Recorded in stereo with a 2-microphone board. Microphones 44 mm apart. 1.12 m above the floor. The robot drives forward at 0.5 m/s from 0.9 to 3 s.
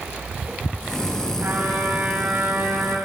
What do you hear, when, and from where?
1.4 s a trumpet: 60° right (ahead or behind), 3 m; by 3.0 s 50° right (ahead or behind), 3.5 m